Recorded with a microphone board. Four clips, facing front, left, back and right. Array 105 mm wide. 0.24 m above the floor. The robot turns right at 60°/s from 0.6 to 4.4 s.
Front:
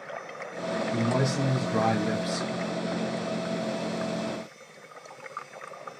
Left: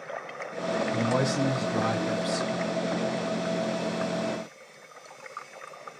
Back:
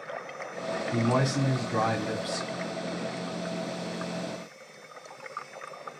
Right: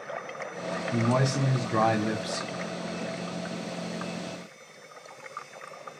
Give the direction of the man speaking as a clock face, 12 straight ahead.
5 o'clock.